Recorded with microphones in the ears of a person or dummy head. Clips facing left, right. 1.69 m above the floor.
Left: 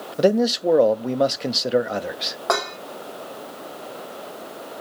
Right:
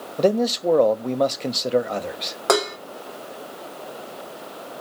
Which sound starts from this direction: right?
Dishes clattering, at 2.5 s.